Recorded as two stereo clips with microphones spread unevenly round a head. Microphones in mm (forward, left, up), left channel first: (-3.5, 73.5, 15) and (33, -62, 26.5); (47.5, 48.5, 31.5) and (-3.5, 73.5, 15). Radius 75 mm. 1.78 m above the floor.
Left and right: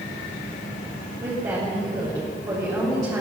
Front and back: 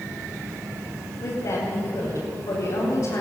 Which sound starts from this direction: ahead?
A woman speaking, at 1.2 s.